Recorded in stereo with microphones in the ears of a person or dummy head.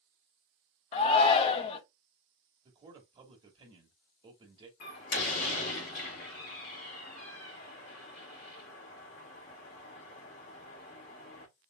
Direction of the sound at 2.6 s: 25° right (ahead or behind).